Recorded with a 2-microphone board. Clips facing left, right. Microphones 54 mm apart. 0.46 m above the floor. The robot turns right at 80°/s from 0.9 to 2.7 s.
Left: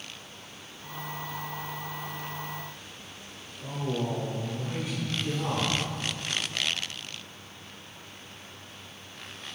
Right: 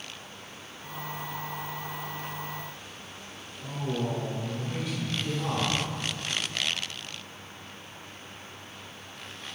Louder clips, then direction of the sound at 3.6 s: Even; 30° left (ahead or behind).